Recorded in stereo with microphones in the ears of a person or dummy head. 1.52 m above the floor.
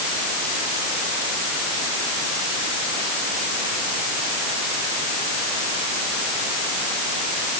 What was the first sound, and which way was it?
Only background noise.